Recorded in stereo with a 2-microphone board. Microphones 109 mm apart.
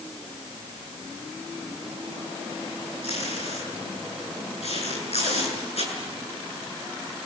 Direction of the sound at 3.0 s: 75° left (ahead or behind).